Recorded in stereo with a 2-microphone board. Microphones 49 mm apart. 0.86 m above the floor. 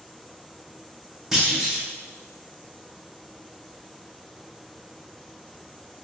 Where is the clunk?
10° right (ahead or behind), 0.7 m.